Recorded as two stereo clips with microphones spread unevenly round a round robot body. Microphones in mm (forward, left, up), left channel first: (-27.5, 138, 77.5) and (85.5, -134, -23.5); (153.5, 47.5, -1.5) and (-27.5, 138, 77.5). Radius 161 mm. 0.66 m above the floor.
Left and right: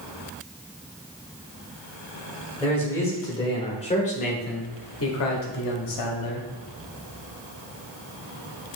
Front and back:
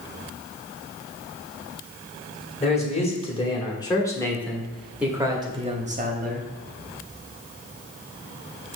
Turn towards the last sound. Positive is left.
turn(degrees=105)